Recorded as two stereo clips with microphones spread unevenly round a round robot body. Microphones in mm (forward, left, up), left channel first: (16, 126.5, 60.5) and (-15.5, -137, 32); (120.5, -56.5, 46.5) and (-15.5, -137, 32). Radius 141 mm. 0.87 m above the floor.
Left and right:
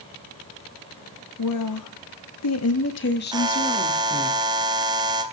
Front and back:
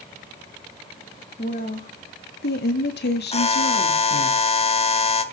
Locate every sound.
1.4 s a woman speaking: 85° left, 2.0 m; by 4.3 s 5° left, 2 m
3.3 s a buzzer: 20° right, 1.7 m